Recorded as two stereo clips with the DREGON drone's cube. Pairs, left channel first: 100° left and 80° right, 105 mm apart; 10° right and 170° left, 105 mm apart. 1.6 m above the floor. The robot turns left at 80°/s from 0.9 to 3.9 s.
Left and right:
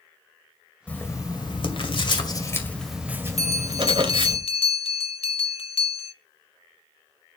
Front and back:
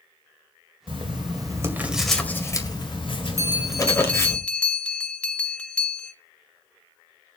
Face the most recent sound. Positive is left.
turn(degrees=70)